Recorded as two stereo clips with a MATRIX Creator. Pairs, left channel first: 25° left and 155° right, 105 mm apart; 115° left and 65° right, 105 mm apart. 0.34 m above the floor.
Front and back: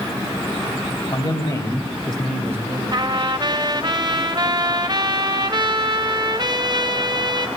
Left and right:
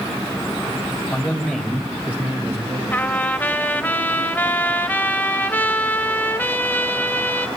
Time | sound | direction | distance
1.1 | a man speaking | 35° left | 2 m
2.9 | a trumpet | straight behind | 0.6 m